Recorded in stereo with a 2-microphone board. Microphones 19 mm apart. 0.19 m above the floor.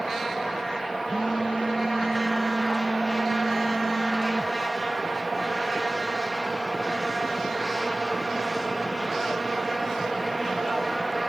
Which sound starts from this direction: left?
A phone buzzing, at 1.1 s.